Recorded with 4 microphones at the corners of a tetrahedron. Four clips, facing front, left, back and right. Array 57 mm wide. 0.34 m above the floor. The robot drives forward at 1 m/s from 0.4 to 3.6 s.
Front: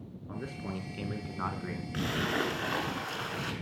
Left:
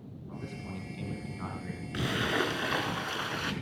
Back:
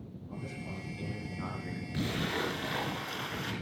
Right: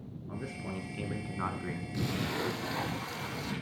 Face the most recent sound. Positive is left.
turn(degrees=85)